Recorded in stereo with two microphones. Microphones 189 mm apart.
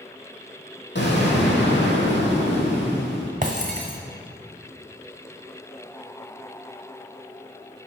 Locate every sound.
0.9 s an explosion: 70° left (ahead or behind), 2 m
3.4 s breaking glass: 40° right (ahead or behind), 1.2 m